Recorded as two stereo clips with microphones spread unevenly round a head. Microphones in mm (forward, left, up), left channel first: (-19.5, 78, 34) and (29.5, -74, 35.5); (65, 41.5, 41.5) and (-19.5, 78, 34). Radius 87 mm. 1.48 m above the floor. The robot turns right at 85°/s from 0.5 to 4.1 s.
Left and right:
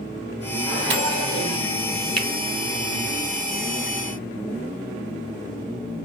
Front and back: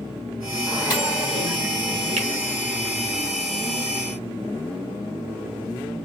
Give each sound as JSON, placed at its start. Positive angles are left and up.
{"t": 0.7, "sound": "a microwave", "azimuth_deg": -100, "distance_m": 1.7}
{"t": 2.2, "sound": "a finger snap", "azimuth_deg": -165, "distance_m": 0.8}